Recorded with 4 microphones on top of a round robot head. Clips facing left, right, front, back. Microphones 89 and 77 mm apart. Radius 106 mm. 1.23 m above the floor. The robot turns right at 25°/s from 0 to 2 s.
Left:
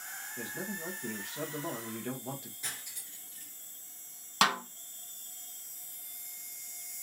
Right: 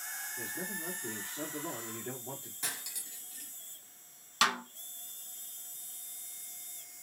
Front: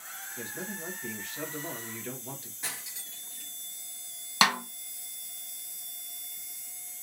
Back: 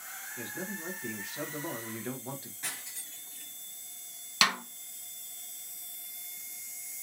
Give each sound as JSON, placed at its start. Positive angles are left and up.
{"t": 0.4, "sound": "a man speaking", "azimuth_deg": 75, "distance_m": 1.2}
{"t": 2.6, "sound": "cutlery clinking", "azimuth_deg": -85, "distance_m": 0.8}
{"t": 4.4, "sound": "a snare drum", "azimuth_deg": 50, "distance_m": 1.2}